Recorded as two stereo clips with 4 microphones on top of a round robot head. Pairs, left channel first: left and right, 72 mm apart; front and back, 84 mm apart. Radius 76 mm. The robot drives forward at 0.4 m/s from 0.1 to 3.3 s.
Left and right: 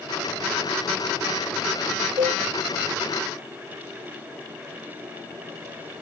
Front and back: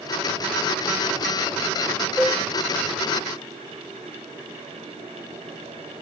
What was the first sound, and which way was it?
A cowbell, 100° right.